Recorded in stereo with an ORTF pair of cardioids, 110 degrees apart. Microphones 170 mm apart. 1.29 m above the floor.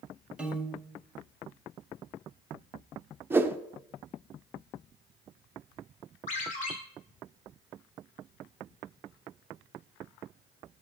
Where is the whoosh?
15° right, 0.5 m.